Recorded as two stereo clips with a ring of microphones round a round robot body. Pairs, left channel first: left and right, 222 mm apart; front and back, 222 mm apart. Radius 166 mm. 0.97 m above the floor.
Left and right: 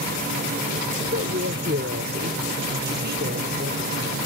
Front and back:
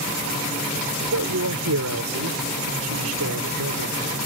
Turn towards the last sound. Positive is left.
turn(degrees=-145)